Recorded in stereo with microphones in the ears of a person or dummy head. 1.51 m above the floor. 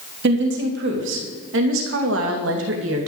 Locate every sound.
0.2 s a woman speaking: 75° right (ahead or behind), 3 m